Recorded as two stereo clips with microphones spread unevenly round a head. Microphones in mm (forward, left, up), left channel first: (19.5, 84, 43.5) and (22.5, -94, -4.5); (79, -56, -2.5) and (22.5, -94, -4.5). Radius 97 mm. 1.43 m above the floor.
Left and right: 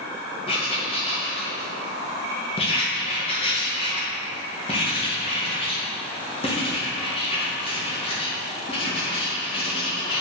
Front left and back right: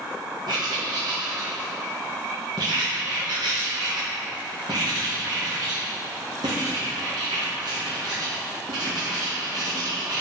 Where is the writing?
155° left, 1.8 m.